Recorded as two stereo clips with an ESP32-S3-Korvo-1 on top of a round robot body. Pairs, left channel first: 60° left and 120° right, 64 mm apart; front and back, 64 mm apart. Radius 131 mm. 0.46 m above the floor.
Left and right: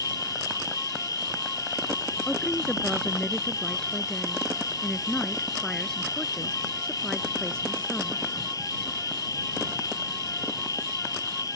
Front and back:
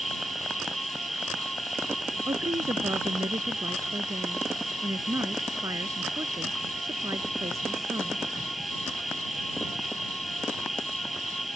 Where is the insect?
90° left.